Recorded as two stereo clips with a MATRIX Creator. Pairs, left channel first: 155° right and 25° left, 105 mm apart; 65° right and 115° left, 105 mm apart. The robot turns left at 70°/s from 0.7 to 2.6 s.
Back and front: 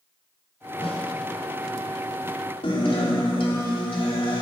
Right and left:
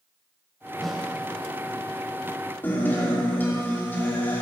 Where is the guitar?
135° right, 3 m.